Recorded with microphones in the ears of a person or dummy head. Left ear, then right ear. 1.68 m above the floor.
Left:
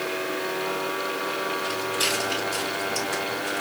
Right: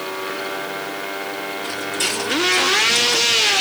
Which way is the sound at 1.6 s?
35° right (ahead or behind).